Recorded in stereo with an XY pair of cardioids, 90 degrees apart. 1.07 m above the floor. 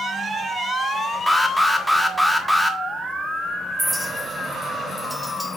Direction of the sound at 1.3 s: 5° right.